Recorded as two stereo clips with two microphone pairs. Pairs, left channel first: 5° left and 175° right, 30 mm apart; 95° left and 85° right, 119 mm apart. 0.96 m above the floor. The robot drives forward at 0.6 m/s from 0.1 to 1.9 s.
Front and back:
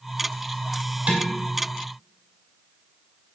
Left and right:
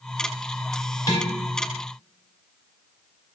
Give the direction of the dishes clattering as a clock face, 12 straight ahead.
7 o'clock.